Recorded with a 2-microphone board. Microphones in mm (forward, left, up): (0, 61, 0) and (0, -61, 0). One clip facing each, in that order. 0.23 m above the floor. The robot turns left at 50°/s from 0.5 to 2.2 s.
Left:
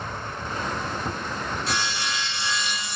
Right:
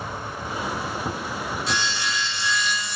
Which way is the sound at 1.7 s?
45° left (ahead or behind).